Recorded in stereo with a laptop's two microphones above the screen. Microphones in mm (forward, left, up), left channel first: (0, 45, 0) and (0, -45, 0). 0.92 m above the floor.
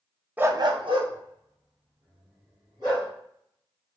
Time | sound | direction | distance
0.4 | a dog barking | 20° right (ahead or behind) | 0.5 m